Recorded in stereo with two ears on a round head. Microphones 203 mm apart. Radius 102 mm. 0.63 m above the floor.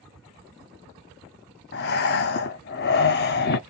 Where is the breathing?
45° left (ahead or behind), 0.5 m.